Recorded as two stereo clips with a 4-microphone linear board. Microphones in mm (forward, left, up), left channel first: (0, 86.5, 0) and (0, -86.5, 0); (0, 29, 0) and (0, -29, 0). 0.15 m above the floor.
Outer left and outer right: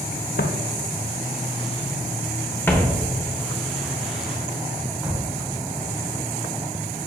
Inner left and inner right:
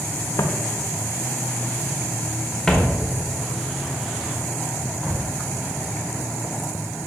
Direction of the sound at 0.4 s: 75° left (ahead or behind).